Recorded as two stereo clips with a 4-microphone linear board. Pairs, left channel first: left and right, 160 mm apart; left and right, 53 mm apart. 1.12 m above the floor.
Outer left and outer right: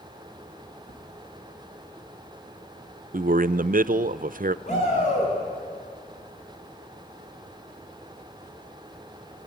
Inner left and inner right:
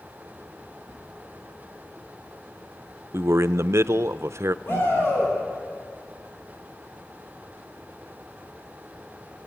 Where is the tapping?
65° left (ahead or behind), 7.5 m.